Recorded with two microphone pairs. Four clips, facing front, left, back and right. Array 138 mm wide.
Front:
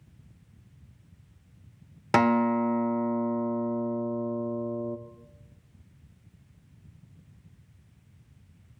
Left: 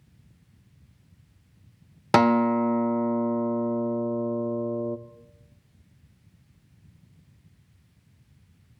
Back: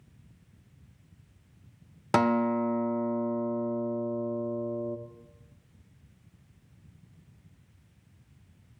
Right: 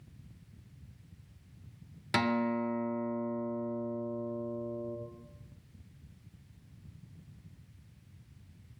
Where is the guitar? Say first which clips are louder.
Left 11 dB, front 2 dB; 80° left, 0.6 m.